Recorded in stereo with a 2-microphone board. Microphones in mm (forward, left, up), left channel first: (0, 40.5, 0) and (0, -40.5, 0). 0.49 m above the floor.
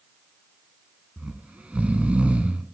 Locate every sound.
1.2 s snoring: 15° right (ahead or behind), 0.6 m